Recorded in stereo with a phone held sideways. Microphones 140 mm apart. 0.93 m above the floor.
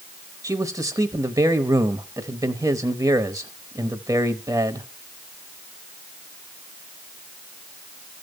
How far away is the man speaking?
About 0.9 m.